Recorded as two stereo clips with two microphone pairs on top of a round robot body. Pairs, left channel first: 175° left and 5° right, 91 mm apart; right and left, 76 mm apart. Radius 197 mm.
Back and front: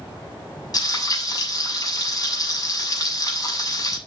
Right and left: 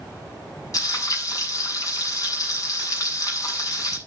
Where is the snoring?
No snoring in this recording.